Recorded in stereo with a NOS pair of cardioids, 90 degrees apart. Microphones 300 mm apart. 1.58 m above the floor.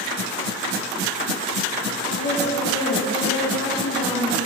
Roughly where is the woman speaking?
Ahead left.